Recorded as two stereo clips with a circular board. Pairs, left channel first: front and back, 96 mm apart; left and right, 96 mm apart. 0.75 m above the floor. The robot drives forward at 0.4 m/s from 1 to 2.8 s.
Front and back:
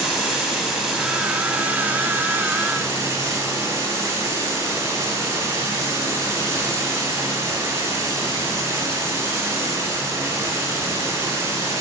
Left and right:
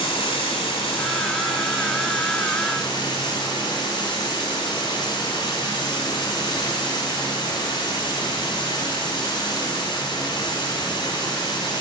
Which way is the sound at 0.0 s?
95° left.